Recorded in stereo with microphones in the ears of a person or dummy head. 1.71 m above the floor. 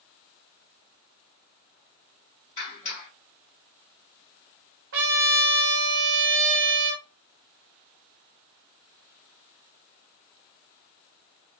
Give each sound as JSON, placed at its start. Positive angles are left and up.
{"t": 2.6, "sound": "a clap", "side_deg": 30, "distance_m": 1.8}
{"t": 4.9, "sound": "a trumpet", "side_deg": -45, "distance_m": 0.6}